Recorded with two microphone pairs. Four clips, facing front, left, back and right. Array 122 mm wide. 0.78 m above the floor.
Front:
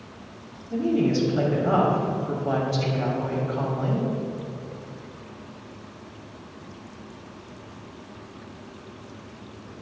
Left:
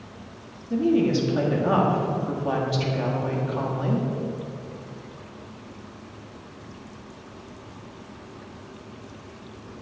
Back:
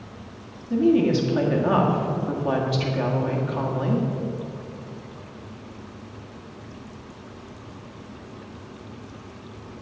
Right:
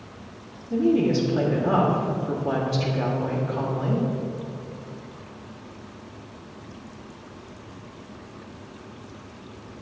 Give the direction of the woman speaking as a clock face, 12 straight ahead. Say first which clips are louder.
Even, back 4 dB; 7 o'clock.